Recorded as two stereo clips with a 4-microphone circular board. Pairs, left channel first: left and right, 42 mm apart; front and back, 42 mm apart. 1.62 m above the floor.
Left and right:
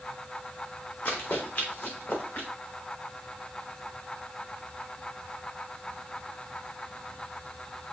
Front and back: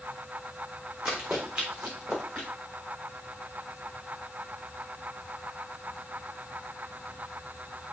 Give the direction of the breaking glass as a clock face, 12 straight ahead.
I don't hear breaking glass.